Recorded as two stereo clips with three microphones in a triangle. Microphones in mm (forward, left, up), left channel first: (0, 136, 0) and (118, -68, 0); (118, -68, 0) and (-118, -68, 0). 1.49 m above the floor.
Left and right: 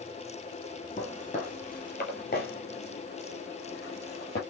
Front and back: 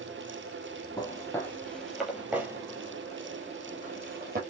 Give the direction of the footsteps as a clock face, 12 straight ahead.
10 o'clock.